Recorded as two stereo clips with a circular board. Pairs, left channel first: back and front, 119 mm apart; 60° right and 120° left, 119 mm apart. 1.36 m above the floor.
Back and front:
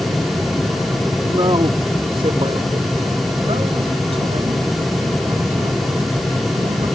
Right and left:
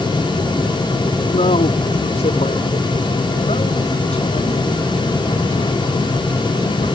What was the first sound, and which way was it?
A man speaking, 50° right.